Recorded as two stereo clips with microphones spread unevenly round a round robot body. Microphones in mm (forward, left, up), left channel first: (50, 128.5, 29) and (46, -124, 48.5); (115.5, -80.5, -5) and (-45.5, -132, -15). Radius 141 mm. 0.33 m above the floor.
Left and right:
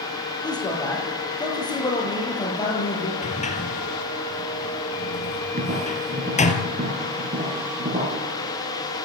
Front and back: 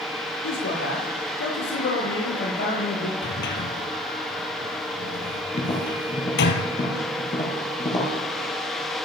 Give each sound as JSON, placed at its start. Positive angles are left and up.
{"t": 0.4, "sound": "a man speaking", "azimuth_deg": 15, "distance_m": 10.0}
{"t": 3.2, "sound": "a sliding door", "azimuth_deg": 25, "distance_m": 2.5}
{"t": 5.5, "sound": "tapping", "azimuth_deg": -35, "distance_m": 6.5}